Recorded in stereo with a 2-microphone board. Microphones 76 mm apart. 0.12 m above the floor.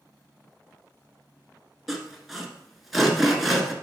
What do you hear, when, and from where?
1.9 s sawing: centre (ahead or behind), 1.1 m